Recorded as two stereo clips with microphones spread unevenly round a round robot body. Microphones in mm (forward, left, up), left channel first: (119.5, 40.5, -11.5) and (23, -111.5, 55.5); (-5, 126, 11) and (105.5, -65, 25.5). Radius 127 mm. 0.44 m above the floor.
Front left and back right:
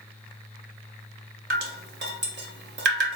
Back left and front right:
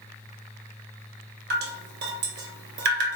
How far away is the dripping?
About 0.9 m.